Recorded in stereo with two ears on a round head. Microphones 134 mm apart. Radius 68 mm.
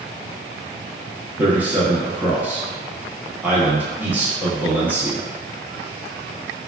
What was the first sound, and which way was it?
A man speaking, 10° right (ahead or behind).